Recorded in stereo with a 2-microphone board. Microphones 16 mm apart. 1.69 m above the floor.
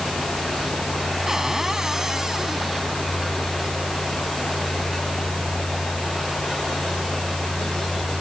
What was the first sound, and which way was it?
A cupboard door, 30° right (ahead or behind).